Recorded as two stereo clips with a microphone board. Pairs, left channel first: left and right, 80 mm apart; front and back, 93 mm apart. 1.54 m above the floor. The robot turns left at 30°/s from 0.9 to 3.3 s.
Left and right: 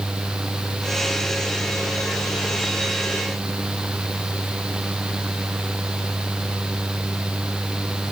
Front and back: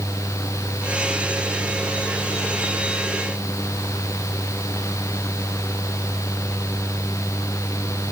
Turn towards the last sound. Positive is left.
No sound to turn to.